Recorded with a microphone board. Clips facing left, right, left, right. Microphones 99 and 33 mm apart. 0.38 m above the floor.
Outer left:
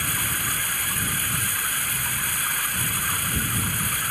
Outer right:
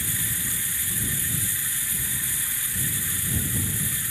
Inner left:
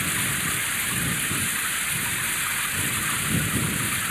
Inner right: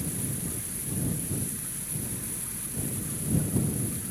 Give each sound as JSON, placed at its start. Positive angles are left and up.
{"t": 0.0, "sound": "running water", "side_deg": 65}